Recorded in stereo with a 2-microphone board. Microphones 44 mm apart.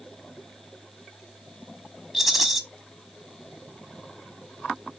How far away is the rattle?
About 1.3 m.